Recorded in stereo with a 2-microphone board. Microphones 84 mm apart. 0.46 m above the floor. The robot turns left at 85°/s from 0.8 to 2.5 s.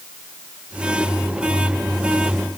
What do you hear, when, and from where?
Only background noise.